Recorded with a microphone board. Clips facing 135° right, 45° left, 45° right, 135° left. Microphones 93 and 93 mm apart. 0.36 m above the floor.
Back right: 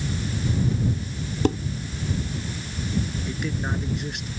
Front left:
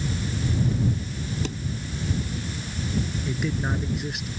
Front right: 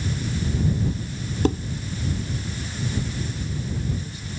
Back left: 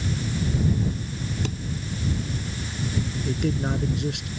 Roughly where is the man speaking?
Behind left.